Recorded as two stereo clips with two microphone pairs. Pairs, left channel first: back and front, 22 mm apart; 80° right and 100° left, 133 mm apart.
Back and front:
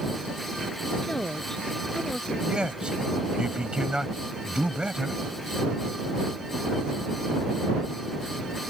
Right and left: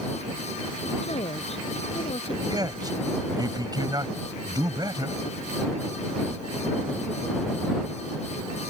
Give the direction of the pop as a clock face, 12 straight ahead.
I don't hear a pop.